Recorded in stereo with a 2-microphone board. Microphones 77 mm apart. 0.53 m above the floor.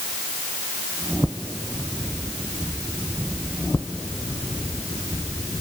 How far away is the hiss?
I don't hear a hiss.